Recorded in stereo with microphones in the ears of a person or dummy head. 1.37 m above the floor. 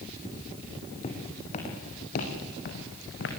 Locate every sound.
1.0 s footsteps: 35° left (ahead or behind), 4 m; by 3.3 s 65° left (ahead or behind), 4 m